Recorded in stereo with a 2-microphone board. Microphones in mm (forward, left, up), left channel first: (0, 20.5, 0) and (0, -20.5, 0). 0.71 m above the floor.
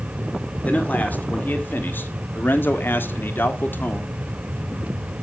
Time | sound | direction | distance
0.7 | a man speaking | 40° left (ahead or behind) | 2.5 m